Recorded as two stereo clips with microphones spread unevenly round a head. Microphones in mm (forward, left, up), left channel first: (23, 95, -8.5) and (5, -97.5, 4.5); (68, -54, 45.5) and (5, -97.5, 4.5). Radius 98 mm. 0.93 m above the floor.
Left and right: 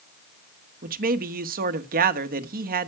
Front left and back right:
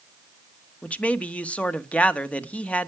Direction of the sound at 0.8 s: 50° right.